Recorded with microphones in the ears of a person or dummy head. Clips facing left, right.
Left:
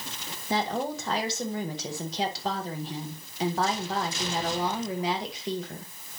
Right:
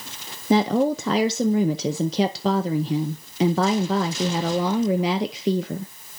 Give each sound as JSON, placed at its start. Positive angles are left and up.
{"t": 0.5, "sound": "a woman speaking", "side_deg": -65, "distance_m": 0.6}